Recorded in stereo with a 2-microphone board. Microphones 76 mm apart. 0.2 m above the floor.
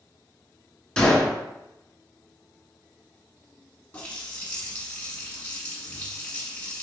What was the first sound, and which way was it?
A gunshot, 10° left (ahead or behind).